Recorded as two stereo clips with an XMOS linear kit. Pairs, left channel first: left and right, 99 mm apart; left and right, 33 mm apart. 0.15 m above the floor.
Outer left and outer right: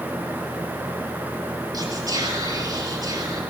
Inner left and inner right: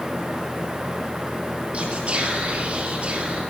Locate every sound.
1.7 s whispering: 40° right (ahead or behind), 3.5 m